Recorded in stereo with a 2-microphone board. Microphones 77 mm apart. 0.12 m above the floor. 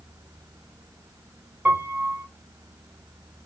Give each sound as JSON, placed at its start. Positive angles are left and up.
{"t": 1.6, "sound": "a piano", "side_deg": -20, "distance_m": 2.0}